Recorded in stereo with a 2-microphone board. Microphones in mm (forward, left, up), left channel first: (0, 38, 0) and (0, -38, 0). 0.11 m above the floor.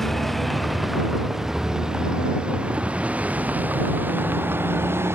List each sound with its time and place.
0.0 s a vehicle: 5° left (ahead or behind); by 5.2 s 35° right (ahead or behind)